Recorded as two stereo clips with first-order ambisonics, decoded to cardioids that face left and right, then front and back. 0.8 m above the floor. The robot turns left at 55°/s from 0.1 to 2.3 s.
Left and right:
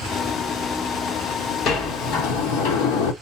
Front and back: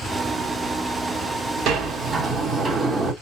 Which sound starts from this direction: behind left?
A sliding door, at 1.7 s.